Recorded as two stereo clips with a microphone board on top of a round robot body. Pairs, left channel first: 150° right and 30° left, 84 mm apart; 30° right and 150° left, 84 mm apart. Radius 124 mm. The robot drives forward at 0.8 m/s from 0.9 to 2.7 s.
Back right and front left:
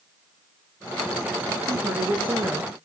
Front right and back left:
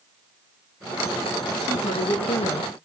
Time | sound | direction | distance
1.7 | a woman speaking | 20° right | 2.5 m